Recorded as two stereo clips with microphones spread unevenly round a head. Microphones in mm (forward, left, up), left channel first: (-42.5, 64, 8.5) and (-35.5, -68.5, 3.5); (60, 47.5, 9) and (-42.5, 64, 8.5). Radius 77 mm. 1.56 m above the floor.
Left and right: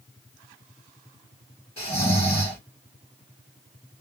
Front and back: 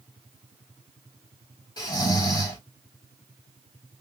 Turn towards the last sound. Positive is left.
turn(degrees=25)